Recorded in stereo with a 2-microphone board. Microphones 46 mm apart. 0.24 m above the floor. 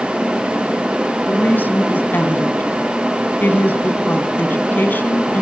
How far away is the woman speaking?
About 2.5 m.